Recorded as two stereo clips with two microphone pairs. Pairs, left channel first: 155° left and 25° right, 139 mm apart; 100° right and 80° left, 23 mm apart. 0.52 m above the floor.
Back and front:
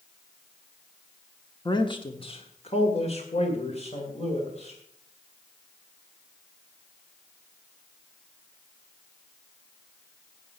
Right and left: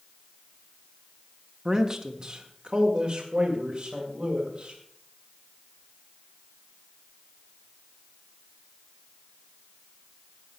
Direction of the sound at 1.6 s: 135° left.